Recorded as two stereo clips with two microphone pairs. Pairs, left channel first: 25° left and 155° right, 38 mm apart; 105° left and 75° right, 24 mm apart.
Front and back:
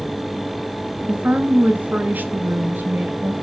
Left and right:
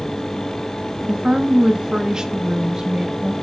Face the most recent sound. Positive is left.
turn(degrees=-140)